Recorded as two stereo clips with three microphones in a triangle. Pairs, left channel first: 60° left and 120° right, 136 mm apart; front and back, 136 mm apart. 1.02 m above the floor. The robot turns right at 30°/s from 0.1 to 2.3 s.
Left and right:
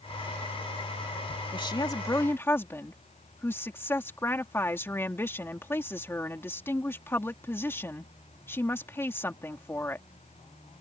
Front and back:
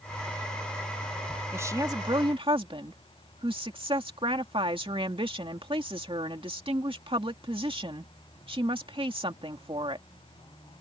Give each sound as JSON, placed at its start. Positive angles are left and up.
{"t": 1.5, "sound": "a woman speaking", "azimuth_deg": 110}